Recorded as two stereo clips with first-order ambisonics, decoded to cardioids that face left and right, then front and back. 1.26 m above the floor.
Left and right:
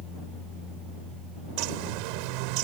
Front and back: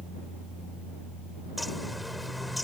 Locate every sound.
1.6 s a bird: 85° right